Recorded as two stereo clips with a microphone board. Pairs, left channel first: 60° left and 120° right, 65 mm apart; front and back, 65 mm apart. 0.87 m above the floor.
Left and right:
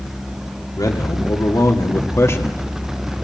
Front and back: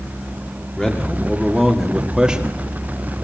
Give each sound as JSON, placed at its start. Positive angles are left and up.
{"t": 0.8, "sound": "a man speaking", "azimuth_deg": 80, "distance_m": 2.0}